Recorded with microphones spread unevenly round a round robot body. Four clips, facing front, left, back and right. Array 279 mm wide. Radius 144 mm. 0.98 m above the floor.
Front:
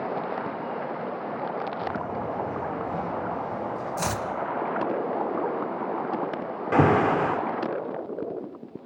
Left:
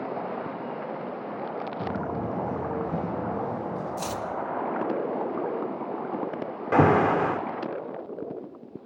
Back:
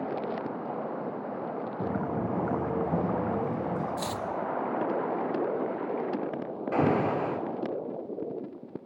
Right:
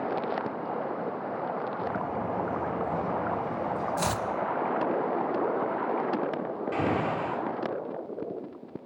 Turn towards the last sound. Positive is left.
turn(degrees=45)